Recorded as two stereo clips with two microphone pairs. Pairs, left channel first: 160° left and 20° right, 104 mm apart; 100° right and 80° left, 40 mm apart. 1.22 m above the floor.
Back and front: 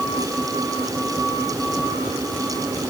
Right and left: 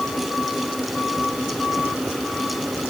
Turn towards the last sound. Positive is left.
No sound to turn to.